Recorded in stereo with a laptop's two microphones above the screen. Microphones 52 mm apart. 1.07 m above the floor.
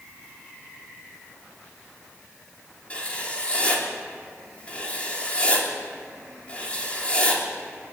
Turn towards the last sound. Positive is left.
turn(degrees=25)  # may be behind; listen again after turning